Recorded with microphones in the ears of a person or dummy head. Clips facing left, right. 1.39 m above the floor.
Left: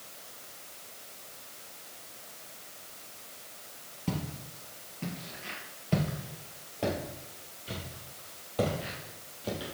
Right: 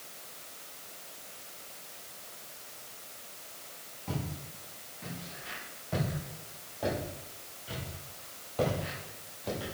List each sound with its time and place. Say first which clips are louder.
4.1 s footsteps: left 3 dB; 50° left (ahead or behind), 2 m; by 9.8 s 10° left (ahead or behind), 3 m